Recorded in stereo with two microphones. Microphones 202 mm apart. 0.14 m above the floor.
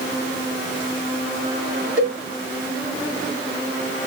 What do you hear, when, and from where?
2.0 s a cowbell: 35° left (ahead or behind), 1.9 m